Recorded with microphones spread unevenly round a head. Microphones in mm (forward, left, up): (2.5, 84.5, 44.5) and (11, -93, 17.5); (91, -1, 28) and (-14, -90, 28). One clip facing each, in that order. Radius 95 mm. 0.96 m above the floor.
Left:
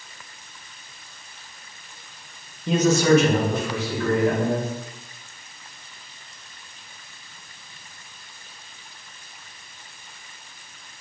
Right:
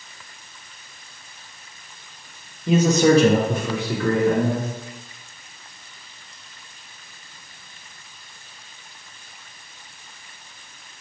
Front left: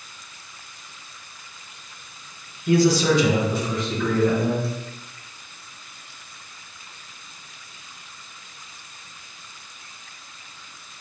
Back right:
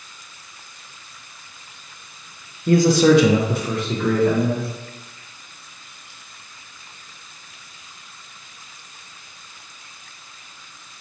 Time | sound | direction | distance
2.7 | a man speaking | 165° right | 0.5 m